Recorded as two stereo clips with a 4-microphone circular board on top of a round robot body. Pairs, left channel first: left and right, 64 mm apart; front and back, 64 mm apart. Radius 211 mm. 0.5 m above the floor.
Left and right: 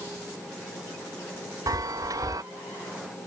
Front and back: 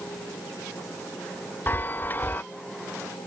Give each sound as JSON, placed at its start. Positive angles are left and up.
{"t": 1.7, "sound": "a chime", "azimuth_deg": -60}